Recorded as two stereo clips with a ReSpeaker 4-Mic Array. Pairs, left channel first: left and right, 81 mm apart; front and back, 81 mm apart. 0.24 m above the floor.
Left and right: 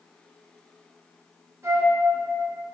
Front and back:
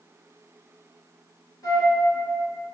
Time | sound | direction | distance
1.6 | a flute | 35° right | 2.0 m